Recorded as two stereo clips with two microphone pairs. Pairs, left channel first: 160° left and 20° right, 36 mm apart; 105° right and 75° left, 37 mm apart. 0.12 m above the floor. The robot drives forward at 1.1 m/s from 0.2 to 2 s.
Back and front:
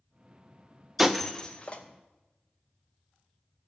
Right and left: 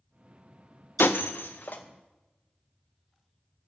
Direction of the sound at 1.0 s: 95° right.